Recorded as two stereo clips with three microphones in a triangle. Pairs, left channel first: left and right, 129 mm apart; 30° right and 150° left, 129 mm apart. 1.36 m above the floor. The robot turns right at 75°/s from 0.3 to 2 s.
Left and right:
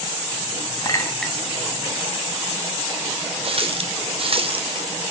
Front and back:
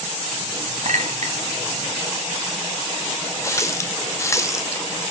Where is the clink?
145° left, 1.3 m; by 1.4 s 175° right, 1.3 m.